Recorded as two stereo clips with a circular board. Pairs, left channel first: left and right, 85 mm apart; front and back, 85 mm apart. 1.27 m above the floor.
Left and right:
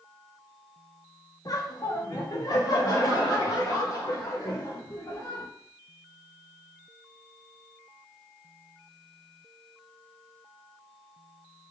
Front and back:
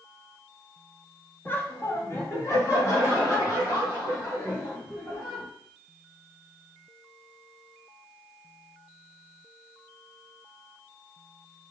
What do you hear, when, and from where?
1.4 s laughter: 60° left, 0.8 m; by 5.5 s 45° left, 3 m